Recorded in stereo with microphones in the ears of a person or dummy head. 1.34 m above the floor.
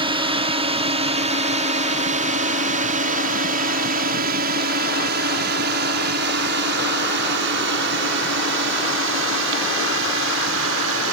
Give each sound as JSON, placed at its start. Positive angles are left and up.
{"t": 0.0, "sound": "a drone", "side_deg": -25}